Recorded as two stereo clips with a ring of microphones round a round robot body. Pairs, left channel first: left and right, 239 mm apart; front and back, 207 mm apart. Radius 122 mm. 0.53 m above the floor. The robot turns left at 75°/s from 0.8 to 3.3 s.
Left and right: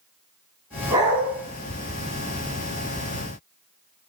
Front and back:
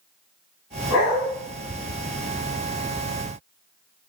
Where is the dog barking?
10° right, 1.4 m; by 1.2 s 35° right, 1.4 m.